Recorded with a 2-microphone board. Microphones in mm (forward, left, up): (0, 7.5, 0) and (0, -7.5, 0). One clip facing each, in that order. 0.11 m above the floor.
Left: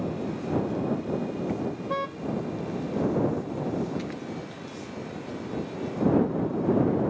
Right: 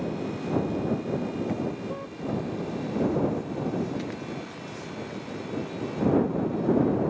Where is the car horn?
60° left (ahead or behind).